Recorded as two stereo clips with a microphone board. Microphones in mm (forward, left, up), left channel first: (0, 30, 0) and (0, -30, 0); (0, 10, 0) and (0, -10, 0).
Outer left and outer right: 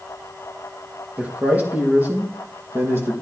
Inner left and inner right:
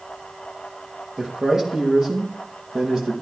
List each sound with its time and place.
1.2 s a man speaking: 25° right (ahead or behind), 5.5 m; by 3.1 s 40° right (ahead or behind), 5 m